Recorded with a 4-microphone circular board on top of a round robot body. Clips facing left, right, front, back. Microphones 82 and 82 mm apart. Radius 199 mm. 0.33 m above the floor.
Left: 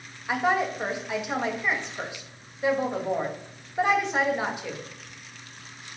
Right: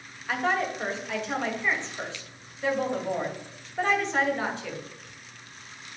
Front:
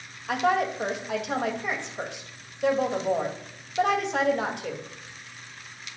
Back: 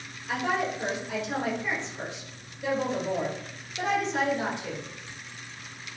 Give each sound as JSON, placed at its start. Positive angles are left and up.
{"t": 0.3, "sound": "a woman speaking", "azimuth_deg": 15, "distance_m": 2.5}